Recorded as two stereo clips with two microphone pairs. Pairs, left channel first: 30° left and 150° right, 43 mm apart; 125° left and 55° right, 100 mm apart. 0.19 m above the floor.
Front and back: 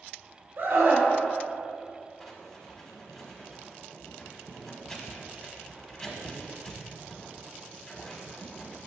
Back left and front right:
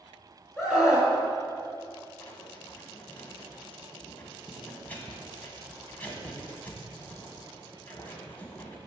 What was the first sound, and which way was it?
A scream, 140° right.